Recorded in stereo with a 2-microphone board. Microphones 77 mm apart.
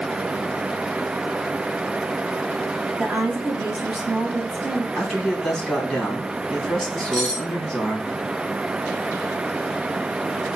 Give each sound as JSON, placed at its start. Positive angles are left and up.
{"t": 3.0, "sound": "a woman speaking", "side_deg": -10, "distance_m": 1.2}
{"t": 5.0, "sound": "a man speaking", "side_deg": 15, "distance_m": 2.5}
{"t": 7.1, "sound": "cutlery clinking", "side_deg": 10, "distance_m": 2.5}